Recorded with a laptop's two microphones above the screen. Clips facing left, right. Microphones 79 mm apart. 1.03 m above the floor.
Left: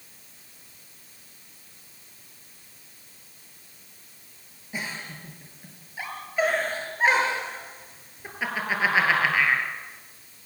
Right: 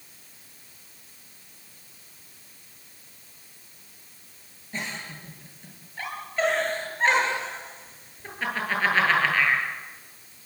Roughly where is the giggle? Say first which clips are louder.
Even; centre.